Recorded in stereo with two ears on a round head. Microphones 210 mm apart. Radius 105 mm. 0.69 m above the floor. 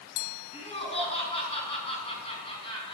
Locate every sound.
0.5 s laughter: 25° left (ahead or behind), 6.5 m